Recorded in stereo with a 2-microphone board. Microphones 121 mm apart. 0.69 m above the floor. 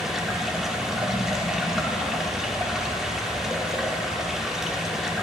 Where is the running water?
5° right (ahead or behind), 1.0 m.